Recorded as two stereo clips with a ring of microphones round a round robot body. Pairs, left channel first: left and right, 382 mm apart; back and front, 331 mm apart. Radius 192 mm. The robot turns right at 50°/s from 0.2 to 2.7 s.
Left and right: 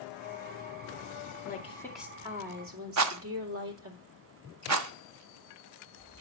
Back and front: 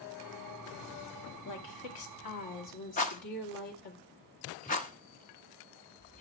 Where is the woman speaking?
155° left, 2 m; by 4.0 s 145° right, 2 m.